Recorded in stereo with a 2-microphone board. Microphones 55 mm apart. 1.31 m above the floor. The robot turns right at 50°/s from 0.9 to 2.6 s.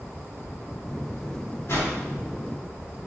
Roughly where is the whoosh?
Left.